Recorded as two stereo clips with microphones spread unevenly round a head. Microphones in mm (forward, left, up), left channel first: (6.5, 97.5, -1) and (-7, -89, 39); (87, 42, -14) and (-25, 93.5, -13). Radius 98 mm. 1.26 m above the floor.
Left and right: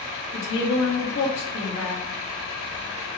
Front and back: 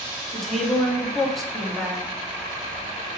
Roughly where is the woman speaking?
Ahead left.